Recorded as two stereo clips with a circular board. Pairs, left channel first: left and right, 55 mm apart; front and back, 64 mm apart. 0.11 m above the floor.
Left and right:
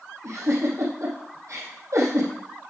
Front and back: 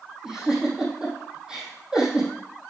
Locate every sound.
0.2 s a giggle: 105° right, 4 m